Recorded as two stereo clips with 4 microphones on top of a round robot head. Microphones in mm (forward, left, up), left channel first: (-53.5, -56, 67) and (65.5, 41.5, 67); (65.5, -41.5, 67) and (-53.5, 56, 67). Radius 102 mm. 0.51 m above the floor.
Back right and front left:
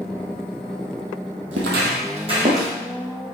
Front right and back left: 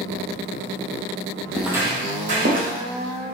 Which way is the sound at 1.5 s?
45° left.